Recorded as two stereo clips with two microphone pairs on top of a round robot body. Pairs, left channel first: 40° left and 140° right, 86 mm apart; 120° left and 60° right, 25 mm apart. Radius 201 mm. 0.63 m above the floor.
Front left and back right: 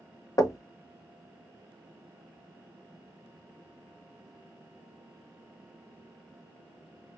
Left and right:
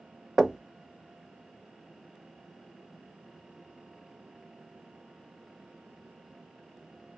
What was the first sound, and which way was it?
Knocking, 5° right.